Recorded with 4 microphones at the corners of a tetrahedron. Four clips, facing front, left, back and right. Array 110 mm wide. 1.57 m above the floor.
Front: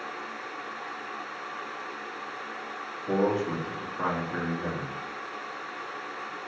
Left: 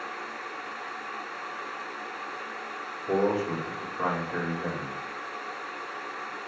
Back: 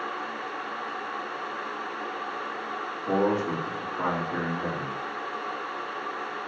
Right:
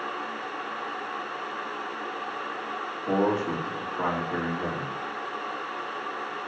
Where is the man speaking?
120° right, 4 m.